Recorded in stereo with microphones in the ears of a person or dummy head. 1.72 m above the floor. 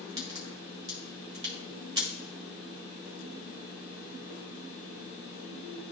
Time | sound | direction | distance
0.2 | a crack | 25° right (ahead or behind) | 1.6 m